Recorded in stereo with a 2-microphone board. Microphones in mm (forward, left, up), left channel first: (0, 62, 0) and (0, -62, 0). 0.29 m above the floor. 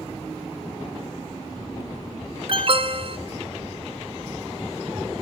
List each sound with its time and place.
2.5 s an alarm: 45° right (ahead or behind), 2 m